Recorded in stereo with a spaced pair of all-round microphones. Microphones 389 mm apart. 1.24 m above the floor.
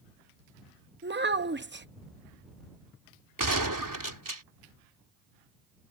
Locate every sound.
1.0 s a child speaking: 30° right (ahead or behind)
3.4 s a gunshot: 55° right (ahead or behind)